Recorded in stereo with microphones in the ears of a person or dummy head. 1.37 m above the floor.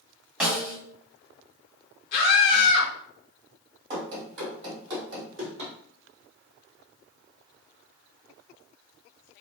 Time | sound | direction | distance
0.4 | a snare drum | 5° right (ahead or behind) | 1.7 m
2.1 | a scream | 50° left (ahead or behind) | 1.0 m
3.9 | running footsteps | 25° right (ahead or behind) | 1.9 m